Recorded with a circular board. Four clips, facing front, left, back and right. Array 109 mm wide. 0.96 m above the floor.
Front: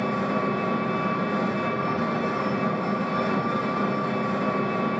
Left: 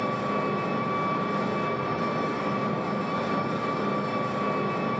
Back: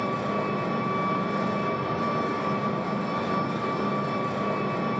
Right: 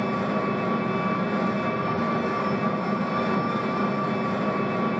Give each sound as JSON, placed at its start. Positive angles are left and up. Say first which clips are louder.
{"t": 0.0, "sound": "an engine running", "louder": "right 2 dB, front 2 dB", "azimuth_deg": -55, "distance_m": 3.0}